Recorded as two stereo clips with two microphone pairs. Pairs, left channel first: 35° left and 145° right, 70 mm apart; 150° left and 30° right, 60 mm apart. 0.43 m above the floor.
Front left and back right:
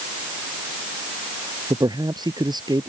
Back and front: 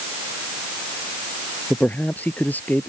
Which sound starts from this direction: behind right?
A man speaking, at 1.7 s.